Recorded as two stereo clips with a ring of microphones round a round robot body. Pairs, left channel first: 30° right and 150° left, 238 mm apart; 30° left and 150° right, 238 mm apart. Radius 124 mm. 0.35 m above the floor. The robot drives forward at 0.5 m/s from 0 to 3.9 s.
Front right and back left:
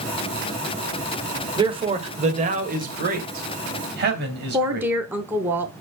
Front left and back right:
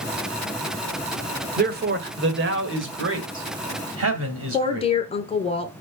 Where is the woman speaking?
75° left, 0.9 m.